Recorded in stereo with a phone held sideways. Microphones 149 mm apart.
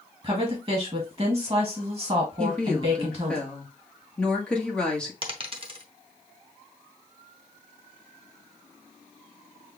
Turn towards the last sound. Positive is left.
turn(degrees=-40)  # may be behind; listen again after turning